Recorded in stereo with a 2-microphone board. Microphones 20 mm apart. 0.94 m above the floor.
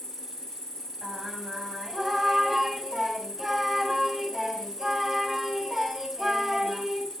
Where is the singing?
5° right (ahead or behind), 5 m.